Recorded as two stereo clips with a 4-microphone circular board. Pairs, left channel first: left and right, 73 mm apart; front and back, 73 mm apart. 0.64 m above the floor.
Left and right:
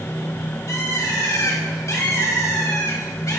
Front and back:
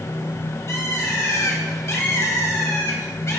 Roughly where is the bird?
Ahead left.